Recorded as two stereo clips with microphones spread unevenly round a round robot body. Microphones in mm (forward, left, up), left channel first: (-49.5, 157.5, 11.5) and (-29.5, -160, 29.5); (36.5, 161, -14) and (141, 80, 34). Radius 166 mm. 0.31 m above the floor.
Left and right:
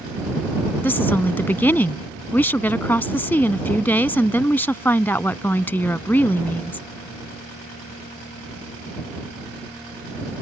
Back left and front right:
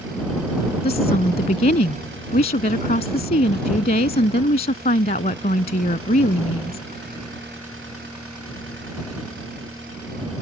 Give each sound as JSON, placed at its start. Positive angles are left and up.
{"t": 0.8, "sound": "a woman speaking", "azimuth_deg": 180}